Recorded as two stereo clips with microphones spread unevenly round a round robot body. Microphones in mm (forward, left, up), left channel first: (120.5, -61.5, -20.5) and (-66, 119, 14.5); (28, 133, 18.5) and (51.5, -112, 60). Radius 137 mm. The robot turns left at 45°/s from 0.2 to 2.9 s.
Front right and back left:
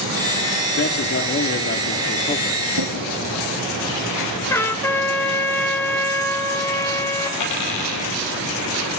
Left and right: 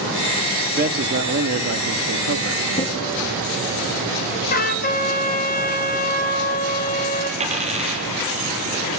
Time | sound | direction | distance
0.8 | a man speaking | 30° right | 1.4 m
2.7 | a drawer | 165° left | 2.5 m
4.5 | a trumpet | 40° left | 1.6 m
7.4 | a dropped coin | 20° right | 4.5 m